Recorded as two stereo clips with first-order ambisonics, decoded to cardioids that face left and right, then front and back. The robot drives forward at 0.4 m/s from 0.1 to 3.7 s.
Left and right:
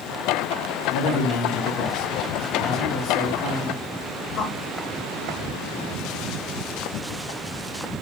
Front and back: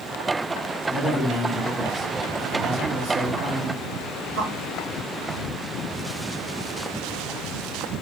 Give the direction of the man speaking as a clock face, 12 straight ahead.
9 o'clock.